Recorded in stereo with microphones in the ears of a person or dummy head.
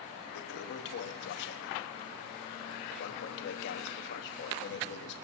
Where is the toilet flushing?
60° left (ahead or behind), 0.9 m.